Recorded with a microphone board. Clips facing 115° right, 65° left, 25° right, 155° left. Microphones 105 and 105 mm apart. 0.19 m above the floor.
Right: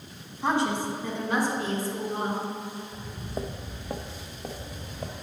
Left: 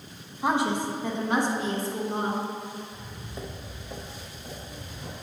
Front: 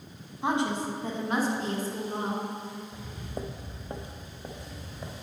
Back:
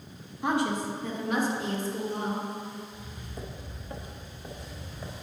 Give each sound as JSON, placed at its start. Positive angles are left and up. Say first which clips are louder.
{"t": 0.4, "sound": "a woman speaking", "louder": "left 1 dB, even", "azimuth_deg": 5, "distance_m": 1.2}
{"t": 2.9, "sound": "footsteps", "louder": "right 5 dB, front 4 dB", "azimuth_deg": -30, "distance_m": 0.6}